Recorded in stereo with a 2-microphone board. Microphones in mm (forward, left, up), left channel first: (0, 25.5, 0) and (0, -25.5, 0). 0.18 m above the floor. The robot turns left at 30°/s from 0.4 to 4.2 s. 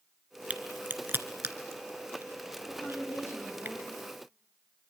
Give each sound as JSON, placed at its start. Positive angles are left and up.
{"t": 0.5, "sound": "a crack", "side_deg": -30, "distance_m": 1.6}
{"t": 2.7, "sound": "a woman speaking", "azimuth_deg": 145, "distance_m": 9.0}